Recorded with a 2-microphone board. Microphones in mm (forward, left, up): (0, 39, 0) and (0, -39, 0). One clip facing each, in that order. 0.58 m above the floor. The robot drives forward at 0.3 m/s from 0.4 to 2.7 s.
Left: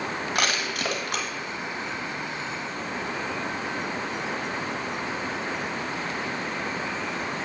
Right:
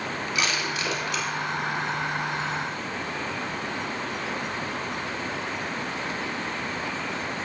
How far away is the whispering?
No whispering in this recording.